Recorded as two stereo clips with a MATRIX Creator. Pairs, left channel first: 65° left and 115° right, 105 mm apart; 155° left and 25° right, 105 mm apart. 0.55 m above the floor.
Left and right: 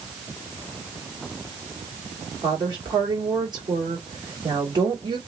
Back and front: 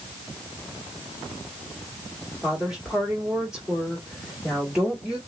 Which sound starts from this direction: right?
A woman speaking, at 2.4 s.